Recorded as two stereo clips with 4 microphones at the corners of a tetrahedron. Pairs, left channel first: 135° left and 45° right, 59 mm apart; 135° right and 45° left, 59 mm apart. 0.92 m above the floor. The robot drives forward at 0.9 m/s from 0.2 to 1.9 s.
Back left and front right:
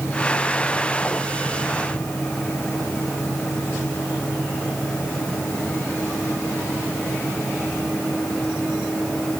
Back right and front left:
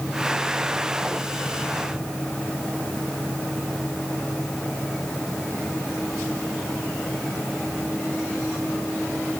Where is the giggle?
I don't hear a giggle.